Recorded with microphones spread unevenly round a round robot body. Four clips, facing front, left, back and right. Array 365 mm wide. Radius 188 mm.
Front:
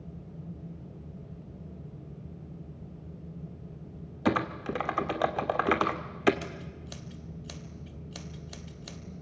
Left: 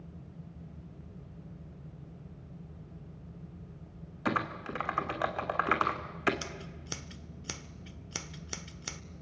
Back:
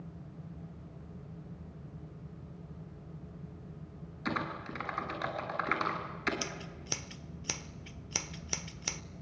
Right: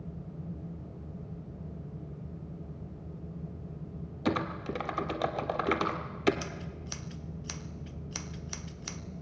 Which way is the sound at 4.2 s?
20° right.